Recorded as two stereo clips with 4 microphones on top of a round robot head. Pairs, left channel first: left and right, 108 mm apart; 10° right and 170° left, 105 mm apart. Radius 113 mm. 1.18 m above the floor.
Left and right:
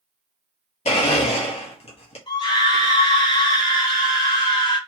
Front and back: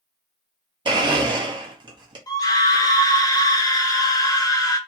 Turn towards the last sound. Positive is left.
turn(degrees=45)